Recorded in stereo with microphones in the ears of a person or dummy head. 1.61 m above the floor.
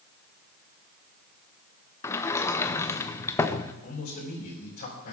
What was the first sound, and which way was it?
A sliding door, 15° left (ahead or behind).